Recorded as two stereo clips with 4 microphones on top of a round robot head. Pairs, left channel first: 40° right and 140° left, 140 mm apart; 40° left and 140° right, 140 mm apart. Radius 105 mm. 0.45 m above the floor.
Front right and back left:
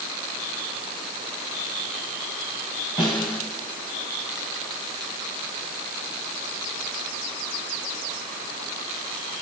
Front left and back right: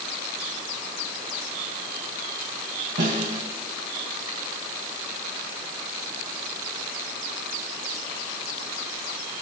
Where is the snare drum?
100° right, 2.5 m.